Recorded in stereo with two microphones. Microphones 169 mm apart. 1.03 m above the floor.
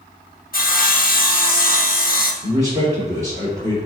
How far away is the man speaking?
About 2.5 m.